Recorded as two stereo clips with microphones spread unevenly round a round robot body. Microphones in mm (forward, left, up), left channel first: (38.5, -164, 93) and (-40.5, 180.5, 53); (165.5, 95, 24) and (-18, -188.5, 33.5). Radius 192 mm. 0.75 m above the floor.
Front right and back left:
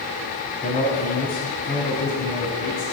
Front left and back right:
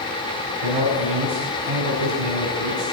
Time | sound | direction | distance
0.6 | a man speaking | 150° right | 5 m